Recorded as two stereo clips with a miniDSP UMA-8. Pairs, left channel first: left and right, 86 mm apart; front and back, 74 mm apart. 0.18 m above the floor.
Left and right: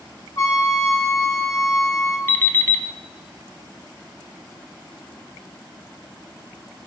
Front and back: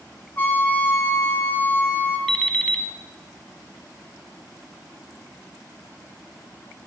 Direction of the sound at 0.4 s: 55° left.